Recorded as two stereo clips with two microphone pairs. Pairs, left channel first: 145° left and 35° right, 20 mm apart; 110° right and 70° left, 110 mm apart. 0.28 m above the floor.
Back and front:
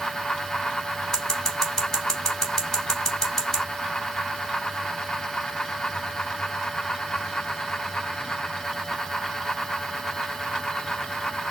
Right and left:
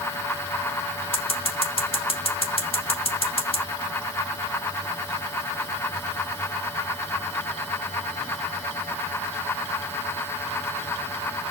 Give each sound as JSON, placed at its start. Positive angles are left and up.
{"t": 1.1, "sound": "scissors", "azimuth_deg": -145, "distance_m": 1.8}